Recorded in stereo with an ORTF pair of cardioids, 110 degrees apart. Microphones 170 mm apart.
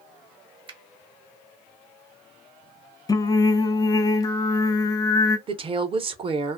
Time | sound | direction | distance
0.7 | a finger snap | 30° right | 0.8 m
3.1 | singing | 20° left | 0.6 m
5.5 | a woman speaking | 35° right | 0.8 m